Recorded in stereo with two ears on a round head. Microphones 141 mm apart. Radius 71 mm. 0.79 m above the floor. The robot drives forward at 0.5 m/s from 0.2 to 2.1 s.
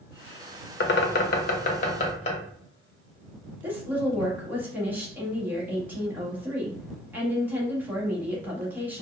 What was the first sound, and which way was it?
A bird, 75° left (ahead or behind).